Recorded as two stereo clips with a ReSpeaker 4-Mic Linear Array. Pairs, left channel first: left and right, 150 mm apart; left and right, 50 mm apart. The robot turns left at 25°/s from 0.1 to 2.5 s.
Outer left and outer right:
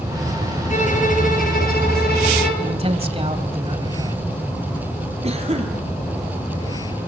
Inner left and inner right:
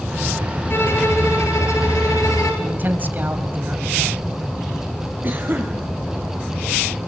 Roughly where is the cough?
Right.